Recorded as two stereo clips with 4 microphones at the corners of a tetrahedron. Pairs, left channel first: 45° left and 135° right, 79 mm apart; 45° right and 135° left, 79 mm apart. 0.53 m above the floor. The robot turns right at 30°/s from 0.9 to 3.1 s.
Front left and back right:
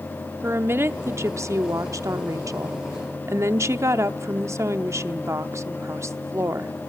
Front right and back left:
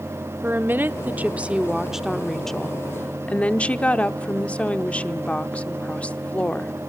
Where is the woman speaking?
175° right, 0.8 m; by 6.7 s 110° right, 0.8 m.